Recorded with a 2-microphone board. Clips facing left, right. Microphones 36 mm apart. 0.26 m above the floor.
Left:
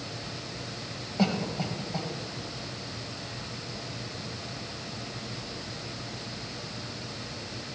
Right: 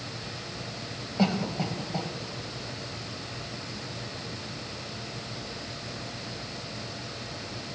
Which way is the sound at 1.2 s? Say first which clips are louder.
Right 1 dB; 5° right (ahead or behind).